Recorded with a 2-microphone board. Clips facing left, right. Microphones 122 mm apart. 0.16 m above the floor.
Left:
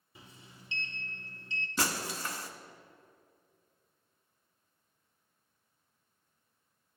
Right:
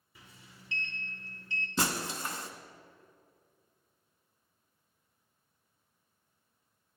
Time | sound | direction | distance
0.1 | a sliding door | 20° left (ahead or behind) | 0.9 m
1.8 | breaking glass | 25° right (ahead or behind) | 0.8 m